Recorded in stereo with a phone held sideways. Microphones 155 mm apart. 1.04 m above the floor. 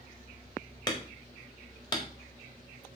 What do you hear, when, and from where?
0.9 s hammering: 30° left (ahead or behind), 1.7 m